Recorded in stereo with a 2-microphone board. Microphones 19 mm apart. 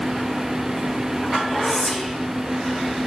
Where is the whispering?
Centre (ahead or behind), 2.5 m.